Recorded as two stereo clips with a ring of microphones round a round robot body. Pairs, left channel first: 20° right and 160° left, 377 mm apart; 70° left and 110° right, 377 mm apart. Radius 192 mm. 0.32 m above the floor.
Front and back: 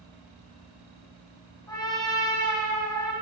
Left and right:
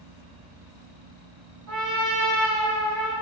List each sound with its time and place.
1.7 s a trumpet: 100° right, 2.0 m